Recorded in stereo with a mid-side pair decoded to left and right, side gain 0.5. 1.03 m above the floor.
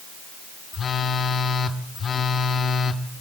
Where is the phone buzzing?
45° left, 1.4 m.